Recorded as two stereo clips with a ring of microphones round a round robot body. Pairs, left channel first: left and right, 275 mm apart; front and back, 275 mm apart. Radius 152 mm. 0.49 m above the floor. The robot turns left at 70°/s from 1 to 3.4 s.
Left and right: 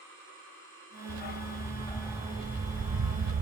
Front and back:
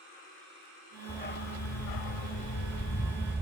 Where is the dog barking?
70° left, 0.6 m; by 3.4 s 90° right, 0.6 m.